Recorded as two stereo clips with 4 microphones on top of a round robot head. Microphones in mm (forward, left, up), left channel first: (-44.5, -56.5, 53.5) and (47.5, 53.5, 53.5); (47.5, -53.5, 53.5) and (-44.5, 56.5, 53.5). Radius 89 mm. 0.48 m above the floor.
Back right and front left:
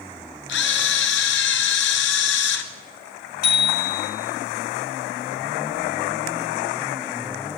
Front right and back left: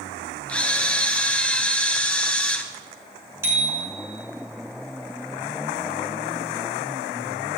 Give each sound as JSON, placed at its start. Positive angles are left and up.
{"t": 0.5, "sound": "a camera shutter", "azimuth_deg": -135, "distance_m": 1.2}
{"t": 3.4, "sound": "a bicycle bell", "azimuth_deg": -155, "distance_m": 4.0}